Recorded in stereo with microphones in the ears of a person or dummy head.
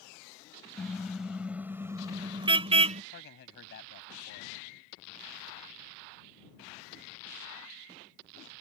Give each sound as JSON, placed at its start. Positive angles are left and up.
{"t": 0.8, "sound": "a car horn", "side_deg": 0}
{"t": 3.1, "sound": "a man speaking", "side_deg": 65}